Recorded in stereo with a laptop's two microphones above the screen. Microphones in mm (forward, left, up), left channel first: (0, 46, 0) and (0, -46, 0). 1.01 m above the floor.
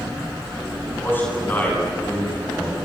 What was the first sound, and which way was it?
A man speaking, 25° left (ahead or behind).